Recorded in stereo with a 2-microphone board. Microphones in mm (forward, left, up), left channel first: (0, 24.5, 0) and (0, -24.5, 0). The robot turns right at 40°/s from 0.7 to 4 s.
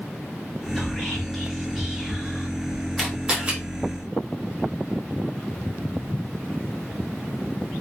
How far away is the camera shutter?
About 1.3 m.